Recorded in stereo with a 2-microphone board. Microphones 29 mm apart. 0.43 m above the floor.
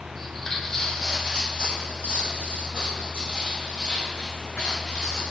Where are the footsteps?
5° left (ahead or behind), 1.0 m; by 5.3 s 60° left (ahead or behind), 3 m.